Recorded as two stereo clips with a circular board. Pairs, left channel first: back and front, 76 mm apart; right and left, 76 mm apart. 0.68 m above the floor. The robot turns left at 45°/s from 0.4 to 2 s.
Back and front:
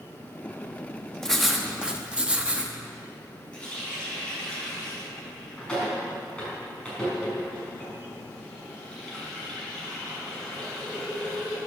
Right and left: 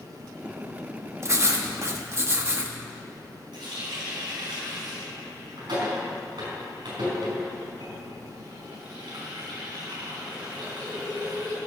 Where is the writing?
100° left, 1.0 m; by 2.8 s 65° left, 1.0 m.